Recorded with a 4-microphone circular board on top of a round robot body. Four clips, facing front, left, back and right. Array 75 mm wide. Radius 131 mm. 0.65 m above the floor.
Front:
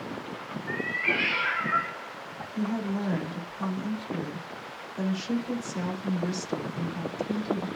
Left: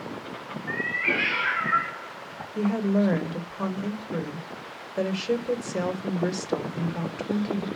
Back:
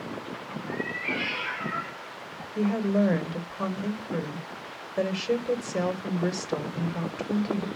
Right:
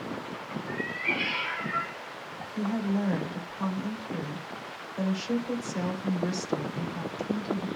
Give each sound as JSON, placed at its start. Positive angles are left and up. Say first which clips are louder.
{"t": 0.7, "sound": "a cat meowing", "louder": "left 5 dB, front 2 dB", "azimuth_deg": 70, "distance_m": 2.5}
{"t": 2.5, "sound": "a woman speaking", "louder": "left 5 dB, back 6 dB", "azimuth_deg": 130, "distance_m": 3.0}